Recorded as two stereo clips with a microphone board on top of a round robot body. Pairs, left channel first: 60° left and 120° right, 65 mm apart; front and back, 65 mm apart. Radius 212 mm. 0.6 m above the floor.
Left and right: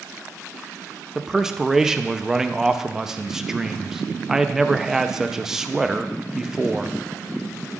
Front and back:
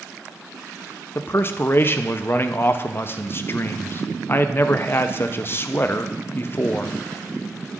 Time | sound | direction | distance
1.1 | a man speaking | 40° right | 0.8 m